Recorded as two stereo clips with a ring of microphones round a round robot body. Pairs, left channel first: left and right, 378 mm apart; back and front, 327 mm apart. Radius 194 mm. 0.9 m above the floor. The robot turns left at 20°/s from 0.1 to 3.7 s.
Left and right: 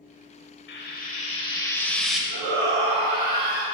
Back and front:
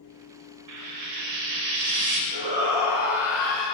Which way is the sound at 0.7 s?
30° left.